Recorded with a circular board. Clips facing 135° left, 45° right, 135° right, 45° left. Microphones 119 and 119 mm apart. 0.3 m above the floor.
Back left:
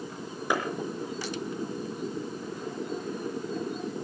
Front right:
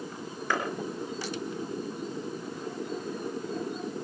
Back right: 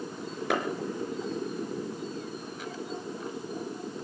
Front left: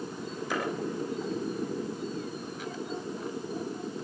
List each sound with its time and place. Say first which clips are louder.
0.5 s a clap: back left 2 dB, back right 5 dB; 150° right, 4.5 m